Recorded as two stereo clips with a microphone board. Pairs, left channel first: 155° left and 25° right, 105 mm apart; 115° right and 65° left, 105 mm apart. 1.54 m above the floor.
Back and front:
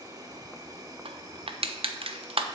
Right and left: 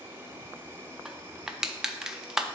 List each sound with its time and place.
0.0 s an insect: 10° left, 1.3 m
1.1 s crushing: 15° right, 0.5 m